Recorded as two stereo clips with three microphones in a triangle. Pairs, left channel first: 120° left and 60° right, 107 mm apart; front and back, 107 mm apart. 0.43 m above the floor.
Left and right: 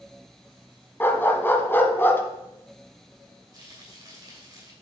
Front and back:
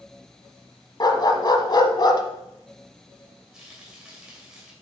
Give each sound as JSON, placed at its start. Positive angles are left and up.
{"t": 1.0, "sound": "a dog barking", "azimuth_deg": 50, "distance_m": 0.9}
{"t": 3.5, "sound": "frying", "azimuth_deg": -100, "distance_m": 2.5}